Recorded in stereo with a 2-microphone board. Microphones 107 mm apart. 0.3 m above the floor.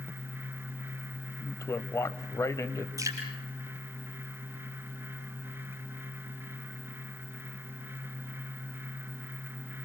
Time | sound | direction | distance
1.4 | a man speaking | 30° left (ahead or behind) | 1.2 m
3.0 | dripping | 30° right (ahead or behind) | 5.5 m